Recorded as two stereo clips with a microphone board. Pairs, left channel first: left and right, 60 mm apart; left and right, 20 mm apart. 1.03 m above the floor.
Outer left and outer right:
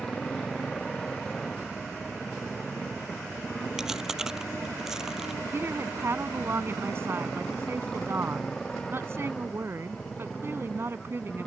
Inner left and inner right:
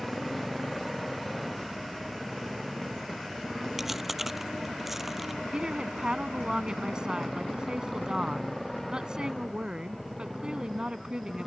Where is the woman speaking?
45° right (ahead or behind).